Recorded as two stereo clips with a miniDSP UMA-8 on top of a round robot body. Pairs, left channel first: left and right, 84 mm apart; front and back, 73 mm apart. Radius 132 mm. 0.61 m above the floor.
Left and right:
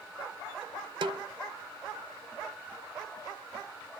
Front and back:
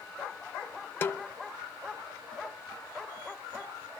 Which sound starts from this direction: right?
A snare drum, at 1.0 s.